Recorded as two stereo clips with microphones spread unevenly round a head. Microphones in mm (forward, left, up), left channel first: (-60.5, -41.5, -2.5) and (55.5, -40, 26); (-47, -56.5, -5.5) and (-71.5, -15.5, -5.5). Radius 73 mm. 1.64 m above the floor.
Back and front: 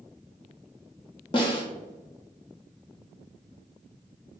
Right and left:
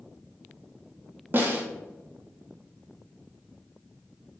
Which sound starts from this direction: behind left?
A snare drum, at 1.3 s.